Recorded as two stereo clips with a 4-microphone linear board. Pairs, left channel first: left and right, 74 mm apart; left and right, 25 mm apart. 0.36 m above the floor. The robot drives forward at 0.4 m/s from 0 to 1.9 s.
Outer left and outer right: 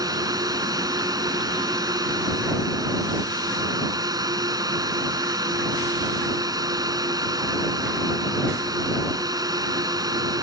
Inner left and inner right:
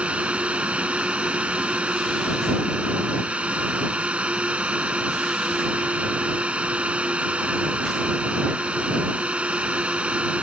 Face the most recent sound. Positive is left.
turn(degrees=-60)  # may be behind; listen again after turning